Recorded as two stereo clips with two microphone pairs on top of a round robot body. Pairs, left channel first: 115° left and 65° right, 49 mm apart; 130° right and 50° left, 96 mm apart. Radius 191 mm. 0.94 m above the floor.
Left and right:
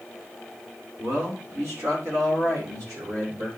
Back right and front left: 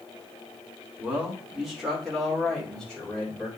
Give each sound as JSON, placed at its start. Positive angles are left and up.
{"t": 1.0, "sound": "a man speaking", "azimuth_deg": -30, "distance_m": 2.5}